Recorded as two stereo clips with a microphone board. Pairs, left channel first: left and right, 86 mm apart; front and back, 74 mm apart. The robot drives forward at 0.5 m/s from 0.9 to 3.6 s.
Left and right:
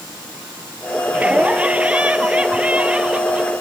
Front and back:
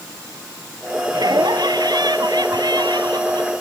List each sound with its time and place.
1.1 s laughter: 165° right